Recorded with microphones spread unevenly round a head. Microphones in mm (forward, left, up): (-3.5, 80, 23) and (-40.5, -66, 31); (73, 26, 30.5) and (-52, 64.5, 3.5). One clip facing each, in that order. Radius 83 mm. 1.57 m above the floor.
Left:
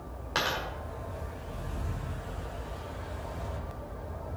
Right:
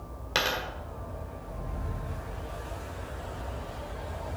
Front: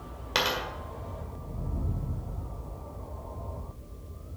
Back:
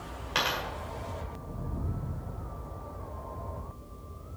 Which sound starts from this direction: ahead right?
A dropped coin, at 0.3 s.